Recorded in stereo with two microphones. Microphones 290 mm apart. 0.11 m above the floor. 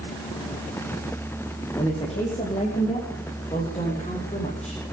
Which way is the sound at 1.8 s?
20° left (ahead or behind).